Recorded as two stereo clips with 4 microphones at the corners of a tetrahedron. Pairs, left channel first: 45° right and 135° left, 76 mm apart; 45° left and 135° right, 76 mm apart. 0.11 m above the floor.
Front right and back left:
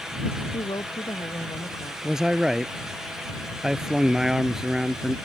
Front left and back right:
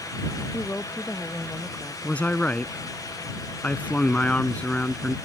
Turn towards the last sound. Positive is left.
turn(degrees=65)